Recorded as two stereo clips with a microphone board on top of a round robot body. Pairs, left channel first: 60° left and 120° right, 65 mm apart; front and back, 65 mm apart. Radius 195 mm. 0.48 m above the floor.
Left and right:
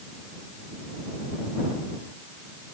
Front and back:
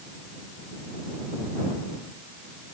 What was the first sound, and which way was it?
Only background noise.